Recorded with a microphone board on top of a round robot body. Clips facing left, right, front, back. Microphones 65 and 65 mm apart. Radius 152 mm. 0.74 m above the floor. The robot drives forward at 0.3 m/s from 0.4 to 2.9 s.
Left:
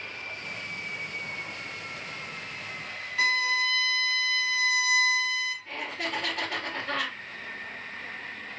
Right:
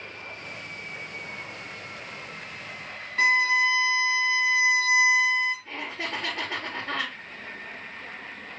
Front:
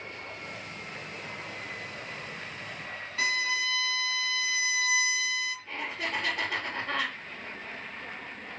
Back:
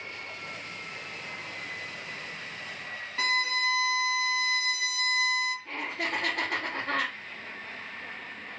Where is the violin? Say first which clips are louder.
Right 5 dB, back 1 dB; 140° right, 2 m.